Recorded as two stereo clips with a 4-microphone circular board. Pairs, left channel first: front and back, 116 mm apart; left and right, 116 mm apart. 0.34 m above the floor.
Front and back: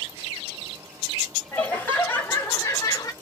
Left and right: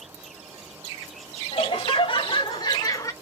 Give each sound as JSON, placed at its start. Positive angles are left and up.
{"t": 1.5, "sound": "laughter", "azimuth_deg": 75, "distance_m": 2.5}